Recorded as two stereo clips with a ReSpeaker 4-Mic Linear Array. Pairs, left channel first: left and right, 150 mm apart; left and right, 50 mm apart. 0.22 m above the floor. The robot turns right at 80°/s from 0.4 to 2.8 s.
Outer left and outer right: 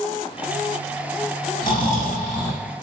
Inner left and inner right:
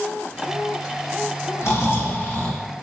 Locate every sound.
1.6 s snoring: 80° left, 0.7 m; by 2.6 s 165° left, 0.7 m